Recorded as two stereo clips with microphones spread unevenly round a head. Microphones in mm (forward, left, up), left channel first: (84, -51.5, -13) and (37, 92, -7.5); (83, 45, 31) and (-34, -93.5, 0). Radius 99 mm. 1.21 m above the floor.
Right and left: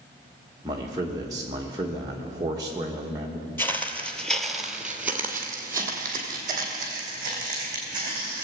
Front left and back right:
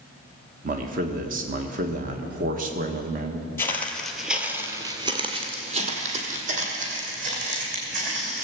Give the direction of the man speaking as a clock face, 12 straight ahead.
6 o'clock.